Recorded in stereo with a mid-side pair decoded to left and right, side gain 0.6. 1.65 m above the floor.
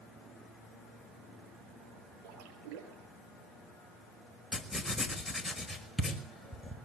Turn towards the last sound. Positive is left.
turn(degrees=5)